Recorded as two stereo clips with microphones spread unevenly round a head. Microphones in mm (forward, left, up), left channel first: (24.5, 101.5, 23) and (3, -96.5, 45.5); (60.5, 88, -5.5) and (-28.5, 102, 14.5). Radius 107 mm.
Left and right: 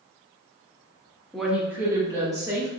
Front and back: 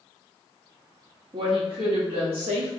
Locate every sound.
1.3 s a woman speaking: 165° left, 0.9 m; by 2.7 s 170° right, 2.5 m